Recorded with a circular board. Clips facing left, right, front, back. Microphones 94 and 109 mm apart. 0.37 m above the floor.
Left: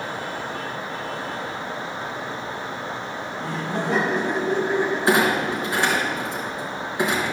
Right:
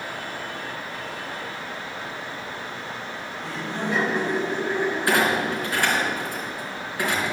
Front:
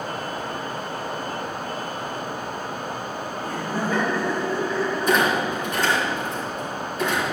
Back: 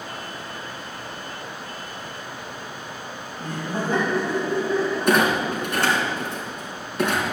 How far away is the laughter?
About 2.5 m.